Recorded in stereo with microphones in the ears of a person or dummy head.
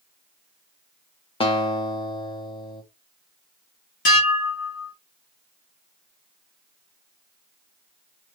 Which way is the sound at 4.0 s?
45° left (ahead or behind).